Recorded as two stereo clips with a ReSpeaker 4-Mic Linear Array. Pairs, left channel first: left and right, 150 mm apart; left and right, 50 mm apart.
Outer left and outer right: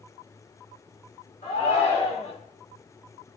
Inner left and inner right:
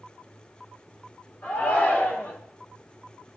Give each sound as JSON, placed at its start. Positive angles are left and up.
{"t": 1.4, "sound": "a shout", "side_deg": 55, "distance_m": 2.5}